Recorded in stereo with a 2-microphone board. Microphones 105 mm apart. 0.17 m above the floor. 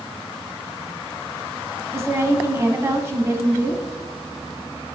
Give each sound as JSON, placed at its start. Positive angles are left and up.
{"t": 1.9, "sound": "a woman speaking", "side_deg": -25, "distance_m": 1.1}